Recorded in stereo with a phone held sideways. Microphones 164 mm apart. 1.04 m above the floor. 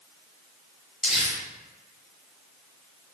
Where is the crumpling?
5° right (ahead or behind), 1.2 m.